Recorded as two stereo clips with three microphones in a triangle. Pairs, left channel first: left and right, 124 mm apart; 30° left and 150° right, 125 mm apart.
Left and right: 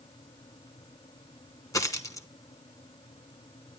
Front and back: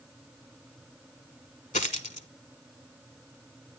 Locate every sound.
1.7 s a dropped coin: 25° left, 0.9 m